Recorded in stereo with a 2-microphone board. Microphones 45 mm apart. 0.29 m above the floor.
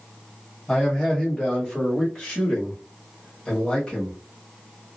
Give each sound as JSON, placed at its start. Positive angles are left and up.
{"t": 0.7, "sound": "a man speaking", "side_deg": 10, "distance_m": 1.4}